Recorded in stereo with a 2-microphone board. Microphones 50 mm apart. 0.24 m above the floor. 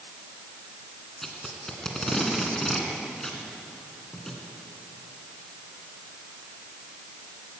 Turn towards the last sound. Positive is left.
turn(degrees=10)  # may be behind; listen again after turning